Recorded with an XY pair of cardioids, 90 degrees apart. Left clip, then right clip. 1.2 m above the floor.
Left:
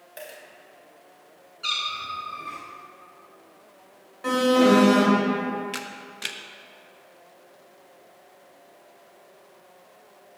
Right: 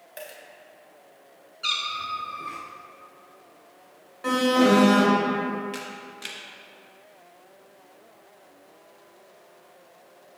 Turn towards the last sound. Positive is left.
turn(degrees=45)